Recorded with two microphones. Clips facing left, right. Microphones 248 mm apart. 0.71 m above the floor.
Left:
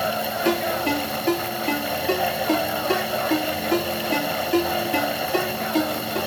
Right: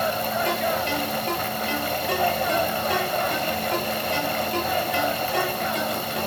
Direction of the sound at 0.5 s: 80° left.